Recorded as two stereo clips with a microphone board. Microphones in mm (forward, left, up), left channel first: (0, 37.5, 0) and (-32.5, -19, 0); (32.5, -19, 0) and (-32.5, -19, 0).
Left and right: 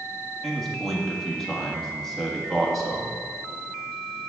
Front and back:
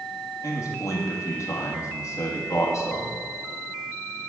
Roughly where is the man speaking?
Ahead right.